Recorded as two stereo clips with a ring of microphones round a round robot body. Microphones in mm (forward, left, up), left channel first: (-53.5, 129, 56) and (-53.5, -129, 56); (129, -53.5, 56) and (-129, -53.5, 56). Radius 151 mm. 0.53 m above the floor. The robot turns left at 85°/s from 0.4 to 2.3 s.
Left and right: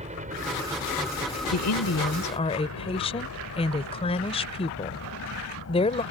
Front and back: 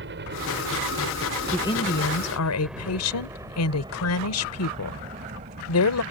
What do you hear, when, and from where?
0.0 s a helicopter: 150° right; by 6.1 s 120° left
1.5 s a woman speaking: 90° left; by 6.0 s 20° left